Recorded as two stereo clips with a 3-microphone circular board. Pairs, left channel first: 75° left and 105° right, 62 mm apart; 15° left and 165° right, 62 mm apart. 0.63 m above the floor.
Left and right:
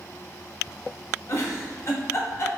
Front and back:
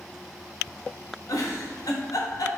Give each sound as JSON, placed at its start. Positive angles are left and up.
{"t": 1.3, "sound": "a giggle", "azimuth_deg": 35, "distance_m": 0.9}